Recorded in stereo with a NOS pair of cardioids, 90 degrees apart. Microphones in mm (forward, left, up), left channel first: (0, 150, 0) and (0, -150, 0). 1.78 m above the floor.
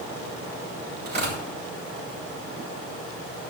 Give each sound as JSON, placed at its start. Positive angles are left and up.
{"t": 1.1, "sound": "tearing paper", "azimuth_deg": -35, "distance_m": 9.0}